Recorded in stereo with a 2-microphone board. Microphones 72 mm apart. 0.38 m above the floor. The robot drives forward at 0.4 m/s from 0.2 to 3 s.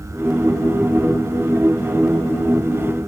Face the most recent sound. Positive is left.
No sound to turn to.